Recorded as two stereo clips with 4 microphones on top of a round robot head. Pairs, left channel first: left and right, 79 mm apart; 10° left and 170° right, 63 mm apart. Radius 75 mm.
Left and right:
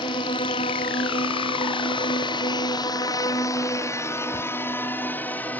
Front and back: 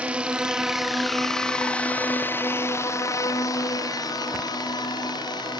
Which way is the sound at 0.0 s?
120° left.